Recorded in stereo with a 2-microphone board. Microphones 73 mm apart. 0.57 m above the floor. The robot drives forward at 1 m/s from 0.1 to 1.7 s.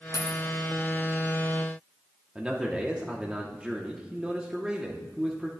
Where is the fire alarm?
I don't hear a fire alarm.